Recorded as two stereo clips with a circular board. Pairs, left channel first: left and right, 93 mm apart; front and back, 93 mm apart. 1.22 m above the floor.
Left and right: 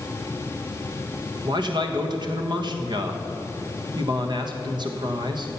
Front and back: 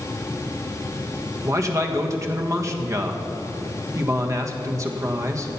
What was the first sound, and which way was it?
A man speaking, 125° right.